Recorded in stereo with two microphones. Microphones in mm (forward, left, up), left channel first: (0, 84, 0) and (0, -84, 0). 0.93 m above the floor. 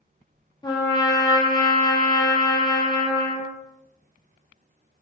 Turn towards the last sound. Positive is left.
turn(degrees=25)  # may be behind; listen again after turning